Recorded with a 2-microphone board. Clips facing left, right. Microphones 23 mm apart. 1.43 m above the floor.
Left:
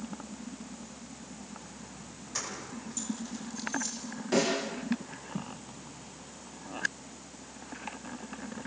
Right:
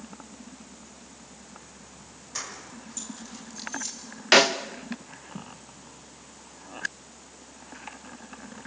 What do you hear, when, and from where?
2.4 s keys jangling: 5° right (ahead or behind), 5.5 m; by 4.0 s 15° right (ahead or behind), 6.5 m
4.3 s a snare drum: 80° right, 1.6 m